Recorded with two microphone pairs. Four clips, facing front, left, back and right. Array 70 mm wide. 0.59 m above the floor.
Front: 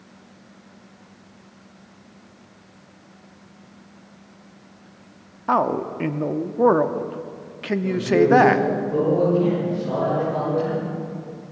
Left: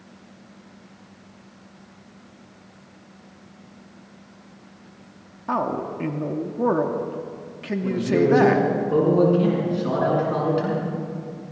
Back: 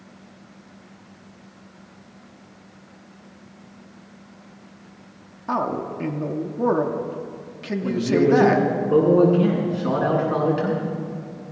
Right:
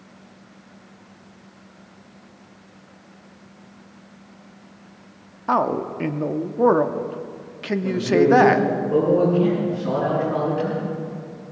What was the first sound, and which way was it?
A man speaking, 45° right.